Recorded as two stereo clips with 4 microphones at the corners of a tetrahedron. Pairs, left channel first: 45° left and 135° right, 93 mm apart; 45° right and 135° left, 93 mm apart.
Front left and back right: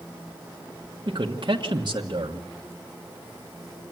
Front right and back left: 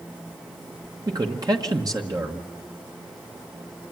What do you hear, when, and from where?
1.1 s a man speaking: 175° right, 1.3 m